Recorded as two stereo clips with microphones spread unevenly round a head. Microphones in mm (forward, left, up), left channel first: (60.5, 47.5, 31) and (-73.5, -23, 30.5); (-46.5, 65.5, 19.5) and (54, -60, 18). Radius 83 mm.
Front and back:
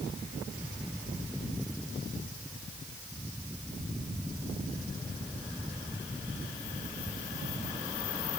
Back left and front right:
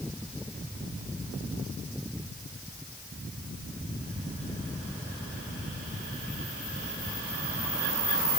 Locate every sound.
Only background noise.